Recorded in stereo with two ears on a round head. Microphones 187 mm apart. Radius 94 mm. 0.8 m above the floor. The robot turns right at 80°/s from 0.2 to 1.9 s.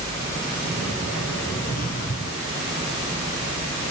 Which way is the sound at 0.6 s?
50° right.